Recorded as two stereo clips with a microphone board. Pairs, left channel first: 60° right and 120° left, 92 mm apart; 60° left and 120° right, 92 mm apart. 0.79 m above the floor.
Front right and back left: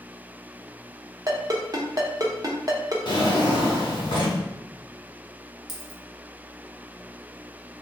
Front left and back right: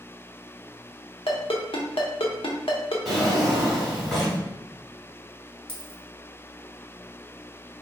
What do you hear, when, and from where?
1.3 s a ringtone: 75° left, 0.8 m
3.0 s a drawer: 30° right, 1.5 m
5.7 s a dropped coin: 30° left, 1.2 m